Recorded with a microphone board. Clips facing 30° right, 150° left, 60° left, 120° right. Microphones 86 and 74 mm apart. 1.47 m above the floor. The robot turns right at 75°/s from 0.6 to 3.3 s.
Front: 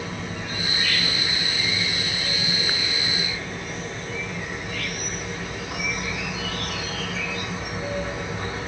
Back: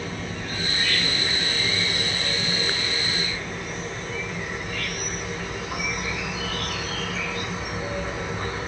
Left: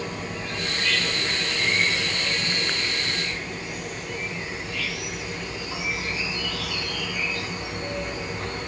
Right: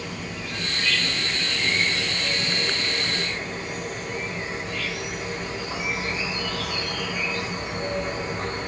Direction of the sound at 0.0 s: 40° left.